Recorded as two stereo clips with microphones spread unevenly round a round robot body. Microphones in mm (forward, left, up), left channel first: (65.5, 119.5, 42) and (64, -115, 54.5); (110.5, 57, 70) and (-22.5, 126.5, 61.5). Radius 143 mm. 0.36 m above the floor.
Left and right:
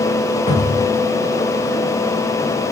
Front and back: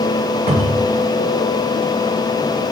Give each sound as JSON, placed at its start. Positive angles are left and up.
{"t": 0.5, "sound": "a cupboard door", "azimuth_deg": 150, "distance_m": 5.5}